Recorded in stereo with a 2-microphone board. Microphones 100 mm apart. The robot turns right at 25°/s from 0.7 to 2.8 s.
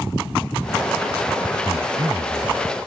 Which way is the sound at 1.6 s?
55° right (ahead or behind).